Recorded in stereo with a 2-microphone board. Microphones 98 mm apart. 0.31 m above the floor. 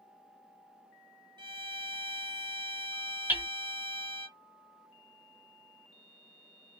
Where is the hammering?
20° right (ahead or behind), 1.4 m.